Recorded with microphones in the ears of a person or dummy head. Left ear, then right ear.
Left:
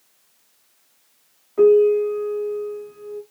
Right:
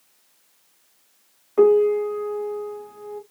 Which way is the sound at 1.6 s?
35° right (ahead or behind).